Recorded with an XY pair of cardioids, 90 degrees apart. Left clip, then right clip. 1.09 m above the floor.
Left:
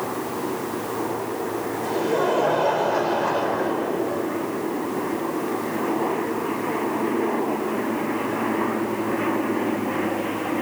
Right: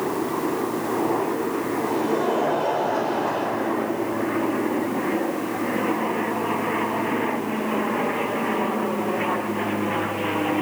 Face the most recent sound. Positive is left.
turn(degrees=35)